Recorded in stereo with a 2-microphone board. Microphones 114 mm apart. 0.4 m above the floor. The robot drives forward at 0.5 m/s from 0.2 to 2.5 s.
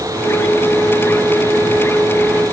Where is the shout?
I don't hear a shout.